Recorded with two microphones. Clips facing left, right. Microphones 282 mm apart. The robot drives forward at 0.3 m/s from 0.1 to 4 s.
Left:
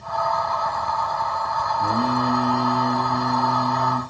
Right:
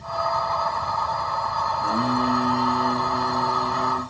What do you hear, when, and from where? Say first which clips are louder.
1.8 s singing: left 1 dB; 45° left (ahead or behind), 1.5 m